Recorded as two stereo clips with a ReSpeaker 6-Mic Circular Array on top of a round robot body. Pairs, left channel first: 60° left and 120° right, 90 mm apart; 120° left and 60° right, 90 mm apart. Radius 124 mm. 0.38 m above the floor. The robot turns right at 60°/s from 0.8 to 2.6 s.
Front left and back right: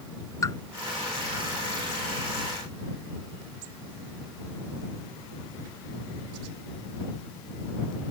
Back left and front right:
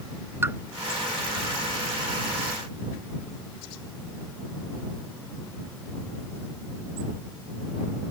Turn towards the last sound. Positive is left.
turn(degrees=115)